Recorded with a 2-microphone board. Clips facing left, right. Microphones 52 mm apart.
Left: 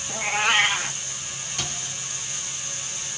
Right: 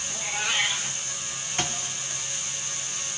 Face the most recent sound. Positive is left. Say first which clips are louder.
# right 4 dB
turn(degrees=-40)  # may be behind; listen again after turning